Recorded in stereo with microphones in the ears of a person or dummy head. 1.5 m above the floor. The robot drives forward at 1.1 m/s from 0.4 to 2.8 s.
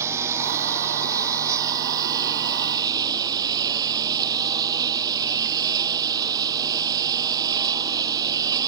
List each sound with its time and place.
0.0 s a lawn mower: 10° right (ahead or behind); by 8.7 s 15° right (ahead or behind)